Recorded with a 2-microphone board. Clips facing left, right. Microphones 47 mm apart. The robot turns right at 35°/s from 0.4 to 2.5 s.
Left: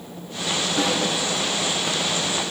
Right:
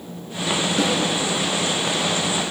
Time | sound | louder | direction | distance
0.8 | a snare drum | right 1 dB | 35° left (ahead or behind) | 3 m